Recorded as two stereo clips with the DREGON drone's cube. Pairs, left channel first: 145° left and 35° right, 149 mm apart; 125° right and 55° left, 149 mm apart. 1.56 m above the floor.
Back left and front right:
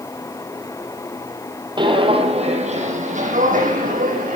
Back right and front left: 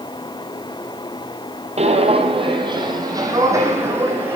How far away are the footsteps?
About 3 m.